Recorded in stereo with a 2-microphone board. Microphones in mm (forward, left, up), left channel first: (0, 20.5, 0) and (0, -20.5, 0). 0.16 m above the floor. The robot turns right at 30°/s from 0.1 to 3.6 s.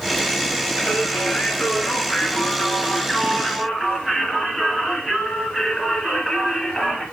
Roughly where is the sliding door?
I don't hear a sliding door.